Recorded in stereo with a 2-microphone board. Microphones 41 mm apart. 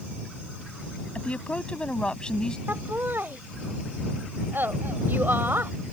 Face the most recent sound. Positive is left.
turn(degrees=-65)  # may be behind; listen again after turning